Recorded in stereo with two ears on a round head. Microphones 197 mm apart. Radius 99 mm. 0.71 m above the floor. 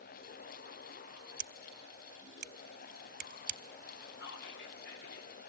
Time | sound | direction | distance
1.4 | scissors | 40° right (ahead or behind) | 1.0 m
4.2 | whispering | 55° left (ahead or behind) | 1.7 m